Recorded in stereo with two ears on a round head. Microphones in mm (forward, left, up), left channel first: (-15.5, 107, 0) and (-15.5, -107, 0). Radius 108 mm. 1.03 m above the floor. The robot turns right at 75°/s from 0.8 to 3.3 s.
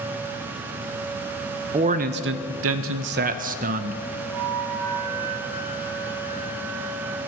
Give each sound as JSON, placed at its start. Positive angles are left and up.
{"t": 1.7, "sound": "a man speaking", "azimuth_deg": -155, "distance_m": 0.6}
{"t": 4.3, "sound": "a flute", "side_deg": -80, "distance_m": 3.0}